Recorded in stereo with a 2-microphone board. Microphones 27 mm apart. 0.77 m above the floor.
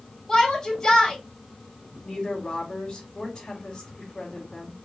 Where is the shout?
25° left (ahead or behind), 3 m.